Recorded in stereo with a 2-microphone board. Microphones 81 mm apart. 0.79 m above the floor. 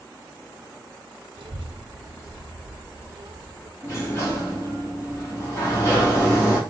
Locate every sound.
1.4 s a child speaking: 60° right (ahead or behind), 0.6 m
3.8 s a sliding door: 35° left (ahead or behind), 1.6 m